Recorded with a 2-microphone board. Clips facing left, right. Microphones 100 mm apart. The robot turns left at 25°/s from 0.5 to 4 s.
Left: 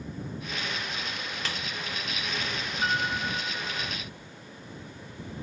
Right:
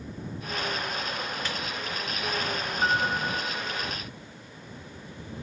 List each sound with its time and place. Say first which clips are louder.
1.4 s a snare drum: right 2 dB; 70° left (ahead or behind)
2.8 s a piano: right 3 dB; 25° right (ahead or behind); by 3.9 s centre (ahead or behind)